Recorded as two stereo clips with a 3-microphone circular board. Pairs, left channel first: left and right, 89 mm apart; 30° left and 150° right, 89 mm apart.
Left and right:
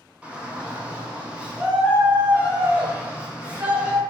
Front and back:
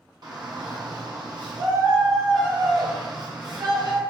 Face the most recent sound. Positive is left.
turn(degrees=-165)